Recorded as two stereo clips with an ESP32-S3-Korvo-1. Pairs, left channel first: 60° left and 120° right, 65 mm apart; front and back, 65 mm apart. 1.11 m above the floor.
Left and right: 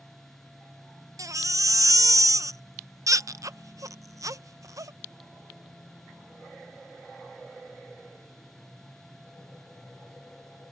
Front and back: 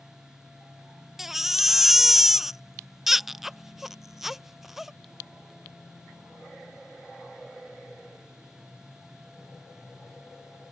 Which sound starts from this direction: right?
A baby crying, at 1.2 s.